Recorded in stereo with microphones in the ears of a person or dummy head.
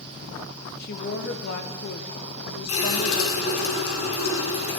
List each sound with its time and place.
0.8 s a woman speaking: 55° left (ahead or behind), 1.0 m
2.7 s a running tap: 75° left (ahead or behind), 3 m